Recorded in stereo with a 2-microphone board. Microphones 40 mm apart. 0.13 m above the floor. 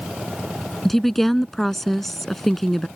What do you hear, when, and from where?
0.8 s a woman speaking: 5° left (ahead or behind)